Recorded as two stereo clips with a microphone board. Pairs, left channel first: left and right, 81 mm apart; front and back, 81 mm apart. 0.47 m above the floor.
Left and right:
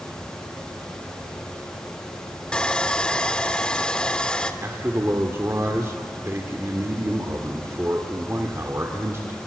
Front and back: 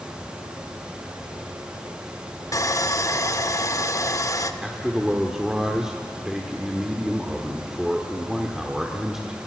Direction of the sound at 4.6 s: 100° right.